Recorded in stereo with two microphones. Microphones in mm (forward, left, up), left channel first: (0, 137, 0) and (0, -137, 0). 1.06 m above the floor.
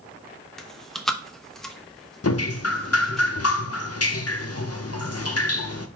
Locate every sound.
0.6 s chewing: centre (ahead or behind), 0.7 m
2.2 s dripping: 65° left (ahead or behind), 0.5 m